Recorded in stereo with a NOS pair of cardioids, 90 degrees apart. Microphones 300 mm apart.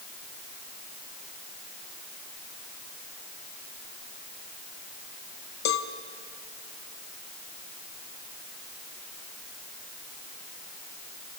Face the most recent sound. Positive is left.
turn(degrees=65)